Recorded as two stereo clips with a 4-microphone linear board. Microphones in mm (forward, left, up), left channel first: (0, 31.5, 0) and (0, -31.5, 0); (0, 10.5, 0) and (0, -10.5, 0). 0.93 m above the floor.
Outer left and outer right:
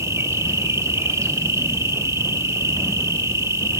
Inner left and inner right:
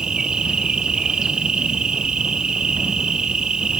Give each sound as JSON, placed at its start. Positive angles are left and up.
{"t": 0.0, "sound": "an insect", "side_deg": -55, "distance_m": 2.0}